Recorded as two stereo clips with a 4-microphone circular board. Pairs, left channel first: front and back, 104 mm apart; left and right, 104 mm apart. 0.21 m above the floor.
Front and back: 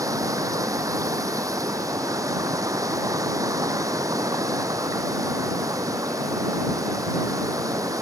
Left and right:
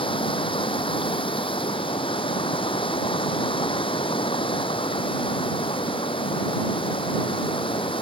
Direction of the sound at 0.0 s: 120° left.